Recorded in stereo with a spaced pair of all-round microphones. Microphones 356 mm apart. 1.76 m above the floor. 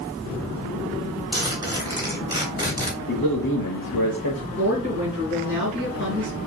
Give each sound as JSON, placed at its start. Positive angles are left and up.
{"t": 1.3, "sound": "a zipper", "side_deg": -10, "distance_m": 2.5}
{"t": 3.1, "sound": "a man speaking", "side_deg": 65, "distance_m": 0.9}
{"t": 4.5, "sound": "a woman speaking", "side_deg": 35, "distance_m": 3.0}